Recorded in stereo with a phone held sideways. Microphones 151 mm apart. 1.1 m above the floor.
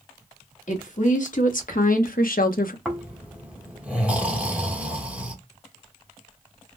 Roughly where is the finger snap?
No finger snap in this recording.